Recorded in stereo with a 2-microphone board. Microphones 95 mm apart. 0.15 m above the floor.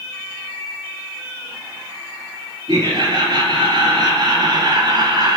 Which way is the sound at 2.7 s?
55° right (ahead or behind).